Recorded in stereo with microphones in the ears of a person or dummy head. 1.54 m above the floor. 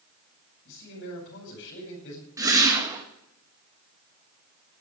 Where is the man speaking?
65° left (ahead or behind), 5.5 m.